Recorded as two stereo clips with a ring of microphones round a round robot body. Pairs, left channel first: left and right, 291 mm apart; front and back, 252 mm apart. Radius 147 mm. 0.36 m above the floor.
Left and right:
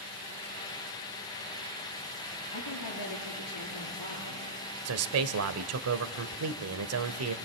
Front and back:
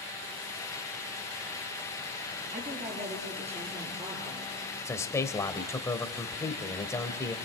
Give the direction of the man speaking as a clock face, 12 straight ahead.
3 o'clock.